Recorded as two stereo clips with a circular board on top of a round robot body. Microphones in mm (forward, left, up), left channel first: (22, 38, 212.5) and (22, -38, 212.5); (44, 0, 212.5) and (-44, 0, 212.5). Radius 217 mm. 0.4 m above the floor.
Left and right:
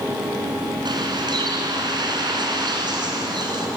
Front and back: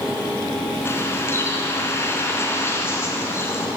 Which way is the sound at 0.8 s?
65° right.